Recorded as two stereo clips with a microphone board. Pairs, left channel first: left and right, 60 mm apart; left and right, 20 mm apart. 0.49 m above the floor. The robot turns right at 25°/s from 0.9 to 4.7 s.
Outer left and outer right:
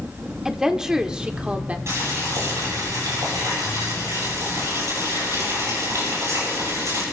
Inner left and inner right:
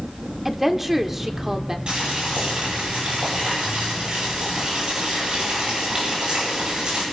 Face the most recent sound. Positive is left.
turn(degrees=-55)